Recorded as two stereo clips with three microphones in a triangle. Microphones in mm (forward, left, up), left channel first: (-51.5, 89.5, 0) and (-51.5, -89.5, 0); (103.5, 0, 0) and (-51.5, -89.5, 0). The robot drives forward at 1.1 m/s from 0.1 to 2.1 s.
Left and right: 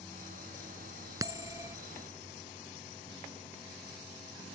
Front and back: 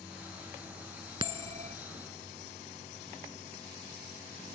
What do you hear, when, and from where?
1.2 s a bell: 135° right; by 1.8 s 160° right